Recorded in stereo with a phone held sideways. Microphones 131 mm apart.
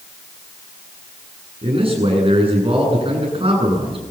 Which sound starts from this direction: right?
A man speaking, at 1.6 s.